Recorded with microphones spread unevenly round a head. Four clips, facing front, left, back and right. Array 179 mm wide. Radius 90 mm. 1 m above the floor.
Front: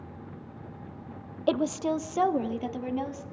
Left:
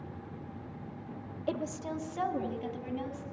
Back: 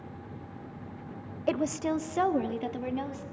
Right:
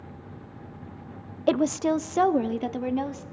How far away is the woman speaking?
About 0.6 m.